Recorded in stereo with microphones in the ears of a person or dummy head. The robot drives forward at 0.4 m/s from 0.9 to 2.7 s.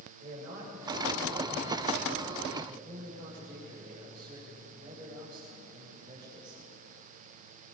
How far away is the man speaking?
About 7.5 m.